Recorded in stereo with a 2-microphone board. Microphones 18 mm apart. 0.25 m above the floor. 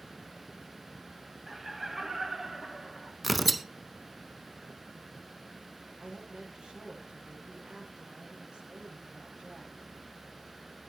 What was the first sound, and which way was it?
Laughter, 20° right (ahead or behind).